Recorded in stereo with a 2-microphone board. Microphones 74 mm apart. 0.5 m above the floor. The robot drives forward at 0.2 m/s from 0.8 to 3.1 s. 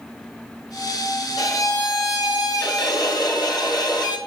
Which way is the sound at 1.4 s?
55° left (ahead or behind).